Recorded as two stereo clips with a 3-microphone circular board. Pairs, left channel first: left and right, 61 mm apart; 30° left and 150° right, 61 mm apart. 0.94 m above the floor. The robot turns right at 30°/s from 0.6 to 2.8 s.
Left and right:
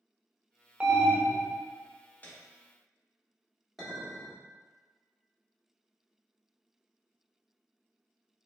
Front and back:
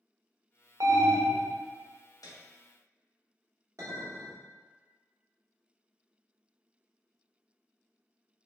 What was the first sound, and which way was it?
An alarm, 160° right.